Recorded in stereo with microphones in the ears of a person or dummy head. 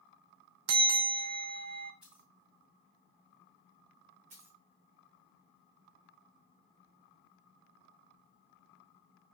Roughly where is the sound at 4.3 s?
Right.